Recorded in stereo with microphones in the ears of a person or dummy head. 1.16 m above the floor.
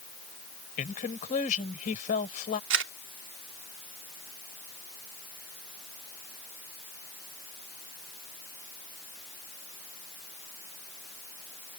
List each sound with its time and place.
0.8 s a woman speaking: 45° left (ahead or behind)
2.7 s a camera shutter: 80° right